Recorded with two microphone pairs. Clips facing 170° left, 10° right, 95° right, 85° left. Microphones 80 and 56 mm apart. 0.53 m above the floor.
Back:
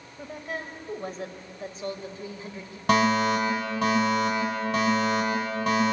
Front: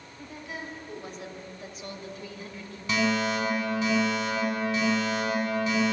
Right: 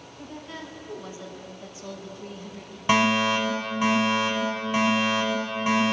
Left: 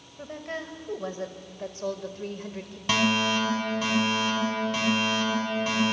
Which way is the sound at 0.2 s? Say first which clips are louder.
Back 4 dB, left 4 dB; 130° left.